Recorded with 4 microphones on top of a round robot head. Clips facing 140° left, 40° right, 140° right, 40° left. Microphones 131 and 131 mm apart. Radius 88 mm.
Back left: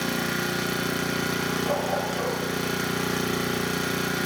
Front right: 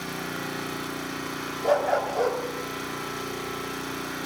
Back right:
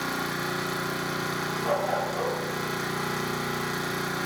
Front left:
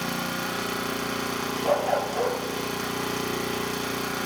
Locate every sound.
0.0 s an engine running: 115° left, 1.7 m
1.6 s a dog barking: 15° right, 1.5 m